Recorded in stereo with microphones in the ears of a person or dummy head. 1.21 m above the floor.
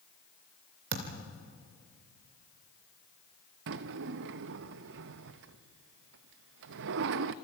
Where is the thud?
65° right (ahead or behind), 2 m.